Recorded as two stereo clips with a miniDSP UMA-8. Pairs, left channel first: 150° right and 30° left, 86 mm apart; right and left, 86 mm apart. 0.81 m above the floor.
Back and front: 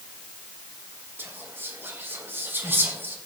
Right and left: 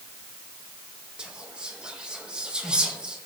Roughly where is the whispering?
Ahead left.